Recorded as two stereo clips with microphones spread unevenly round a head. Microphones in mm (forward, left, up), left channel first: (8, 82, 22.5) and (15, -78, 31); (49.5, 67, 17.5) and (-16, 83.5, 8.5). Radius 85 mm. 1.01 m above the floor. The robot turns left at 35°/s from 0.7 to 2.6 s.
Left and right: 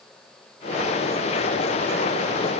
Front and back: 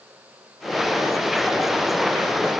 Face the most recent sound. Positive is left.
No sound to turn to.